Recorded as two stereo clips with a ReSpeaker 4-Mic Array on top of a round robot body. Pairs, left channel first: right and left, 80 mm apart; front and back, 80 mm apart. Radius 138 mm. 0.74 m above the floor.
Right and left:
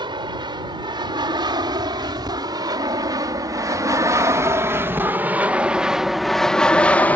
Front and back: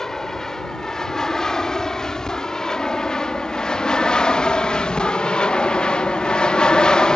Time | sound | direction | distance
0.0 | an aircraft | 85° left | ?